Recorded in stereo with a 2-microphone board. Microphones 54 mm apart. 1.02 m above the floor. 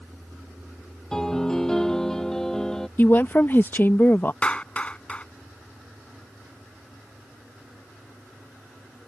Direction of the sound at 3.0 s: 40° left (ahead or behind).